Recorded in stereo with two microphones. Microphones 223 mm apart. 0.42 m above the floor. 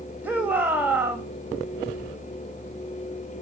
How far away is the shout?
About 1.9 m.